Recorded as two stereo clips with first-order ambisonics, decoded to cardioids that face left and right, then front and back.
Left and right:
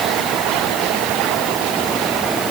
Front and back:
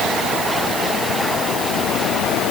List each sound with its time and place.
Only background noise.